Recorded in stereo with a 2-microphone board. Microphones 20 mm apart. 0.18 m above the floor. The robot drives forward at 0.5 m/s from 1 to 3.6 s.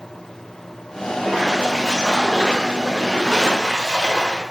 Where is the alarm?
No alarm in this recording.